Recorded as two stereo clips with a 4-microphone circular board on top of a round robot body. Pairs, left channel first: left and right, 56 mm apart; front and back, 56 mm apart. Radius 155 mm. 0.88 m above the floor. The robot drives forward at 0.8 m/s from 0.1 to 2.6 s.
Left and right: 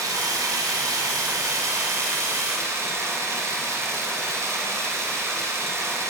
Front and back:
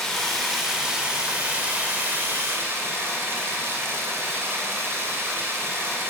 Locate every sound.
0.0 s running water: 85° right, 2.5 m; by 6.1 s 130° right, 3 m